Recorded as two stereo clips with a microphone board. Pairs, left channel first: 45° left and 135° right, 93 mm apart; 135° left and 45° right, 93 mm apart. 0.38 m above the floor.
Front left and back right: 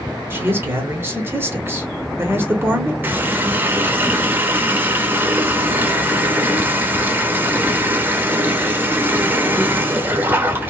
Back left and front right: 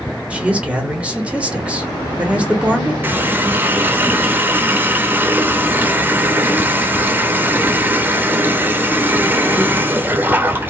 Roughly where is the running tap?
Right.